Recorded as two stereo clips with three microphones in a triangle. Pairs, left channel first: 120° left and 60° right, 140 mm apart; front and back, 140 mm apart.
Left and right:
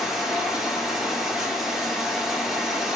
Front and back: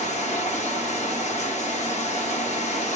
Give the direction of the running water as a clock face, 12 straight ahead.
11 o'clock.